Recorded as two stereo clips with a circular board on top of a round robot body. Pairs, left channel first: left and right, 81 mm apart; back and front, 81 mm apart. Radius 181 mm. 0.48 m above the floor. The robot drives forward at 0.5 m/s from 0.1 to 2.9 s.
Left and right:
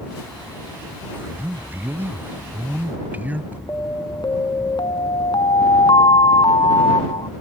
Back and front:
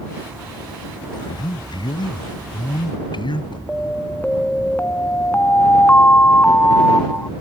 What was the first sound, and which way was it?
A man speaking, 155° right.